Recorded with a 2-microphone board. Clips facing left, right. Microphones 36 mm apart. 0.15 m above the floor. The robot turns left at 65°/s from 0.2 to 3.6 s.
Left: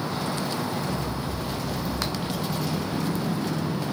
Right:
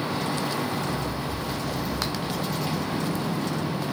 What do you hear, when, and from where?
0.9 s running footsteps: 65° left (ahead or behind), 3 m; by 3.9 s 75° right (ahead or behind), 1.7 m